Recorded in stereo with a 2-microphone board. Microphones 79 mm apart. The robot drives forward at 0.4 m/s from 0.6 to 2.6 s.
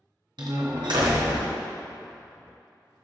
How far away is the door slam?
About 0.7 m.